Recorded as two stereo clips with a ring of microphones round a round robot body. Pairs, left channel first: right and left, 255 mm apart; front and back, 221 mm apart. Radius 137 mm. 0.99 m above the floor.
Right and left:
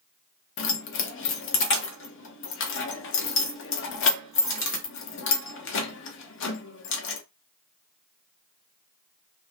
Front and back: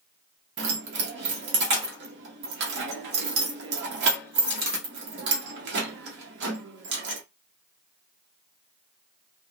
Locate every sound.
0.6 s keys jangling: 135° right, 0.7 m